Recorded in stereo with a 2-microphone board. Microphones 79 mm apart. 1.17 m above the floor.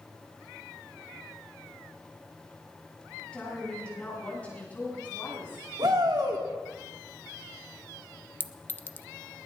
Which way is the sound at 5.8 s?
60° right (ahead or behind).